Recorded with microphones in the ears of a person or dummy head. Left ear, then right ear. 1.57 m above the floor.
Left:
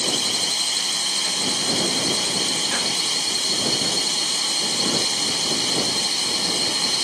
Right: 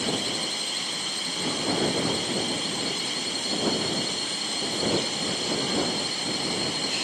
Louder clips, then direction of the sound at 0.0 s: Left 6 dB; 30° left (ahead or behind).